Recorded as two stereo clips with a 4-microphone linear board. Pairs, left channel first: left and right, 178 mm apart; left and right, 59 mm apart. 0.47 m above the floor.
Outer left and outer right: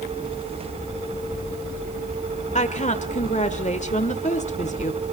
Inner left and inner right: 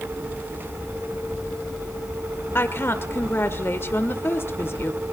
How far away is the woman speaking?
About 1.3 m.